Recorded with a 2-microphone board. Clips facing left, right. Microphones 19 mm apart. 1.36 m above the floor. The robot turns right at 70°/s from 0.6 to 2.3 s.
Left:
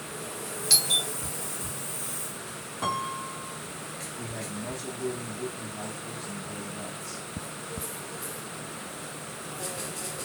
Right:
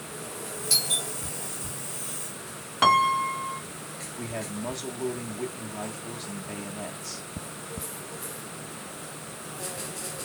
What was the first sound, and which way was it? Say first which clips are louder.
A doorbell: left 2 dB; 40° left (ahead or behind).